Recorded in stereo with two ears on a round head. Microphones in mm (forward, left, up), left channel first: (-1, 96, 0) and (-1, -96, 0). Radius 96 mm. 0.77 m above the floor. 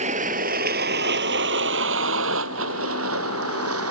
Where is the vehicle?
35° right (ahead or behind); by 3.9 s 75° right (ahead or behind).